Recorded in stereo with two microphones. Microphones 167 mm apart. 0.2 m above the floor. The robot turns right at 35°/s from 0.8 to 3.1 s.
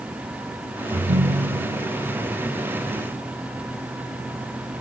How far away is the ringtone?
About 1.3 m.